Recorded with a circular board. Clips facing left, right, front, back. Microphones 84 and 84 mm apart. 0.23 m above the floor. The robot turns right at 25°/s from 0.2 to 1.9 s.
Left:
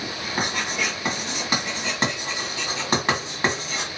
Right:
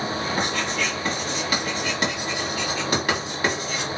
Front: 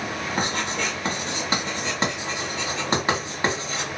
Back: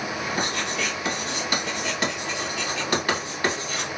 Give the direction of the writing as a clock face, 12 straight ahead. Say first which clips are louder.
Left 3 dB, front 3 dB; 12 o'clock.